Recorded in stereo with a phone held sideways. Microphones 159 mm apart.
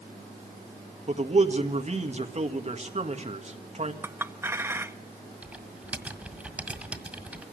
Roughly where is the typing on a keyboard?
Centre.